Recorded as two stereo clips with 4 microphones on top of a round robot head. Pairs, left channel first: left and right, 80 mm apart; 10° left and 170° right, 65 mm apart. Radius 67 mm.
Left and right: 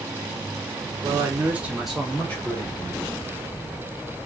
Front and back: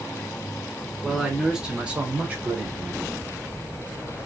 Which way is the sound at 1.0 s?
85° right.